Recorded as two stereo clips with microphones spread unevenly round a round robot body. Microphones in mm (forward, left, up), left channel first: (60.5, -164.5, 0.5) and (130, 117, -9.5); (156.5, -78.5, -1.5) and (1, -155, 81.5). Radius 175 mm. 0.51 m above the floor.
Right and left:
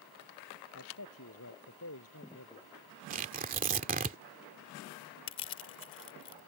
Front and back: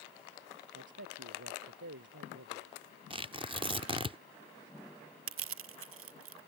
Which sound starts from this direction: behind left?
Tearing paper, at 3.1 s.